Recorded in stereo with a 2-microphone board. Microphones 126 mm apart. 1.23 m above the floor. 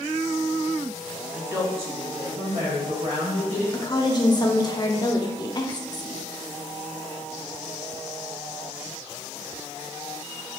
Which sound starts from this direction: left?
A woman speaking, at 3.7 s.